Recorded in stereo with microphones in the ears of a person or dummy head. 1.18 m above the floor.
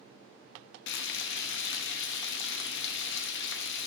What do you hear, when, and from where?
0.9 s frying: 65° left (ahead or behind), 0.8 m